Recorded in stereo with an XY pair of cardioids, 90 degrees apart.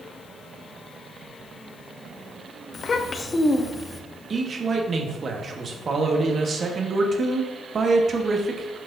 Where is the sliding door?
No sliding door in this recording.